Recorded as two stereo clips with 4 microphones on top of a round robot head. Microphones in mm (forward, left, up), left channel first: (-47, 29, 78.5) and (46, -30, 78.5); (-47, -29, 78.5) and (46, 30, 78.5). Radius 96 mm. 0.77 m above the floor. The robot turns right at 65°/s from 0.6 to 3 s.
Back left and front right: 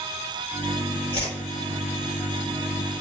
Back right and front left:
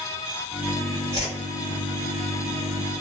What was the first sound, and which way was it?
A whoosh, 170° left.